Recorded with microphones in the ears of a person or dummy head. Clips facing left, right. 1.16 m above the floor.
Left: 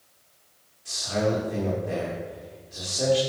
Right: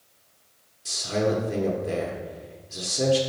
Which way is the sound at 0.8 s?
45° right (ahead or behind).